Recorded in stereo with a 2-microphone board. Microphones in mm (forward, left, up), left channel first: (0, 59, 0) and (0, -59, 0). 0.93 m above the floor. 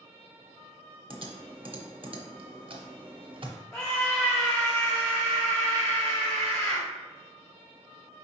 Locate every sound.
1.1 s typing on a keyboard: 45° right (ahead or behind), 0.7 m
3.7 s a scream: 5° left (ahead or behind), 1.0 m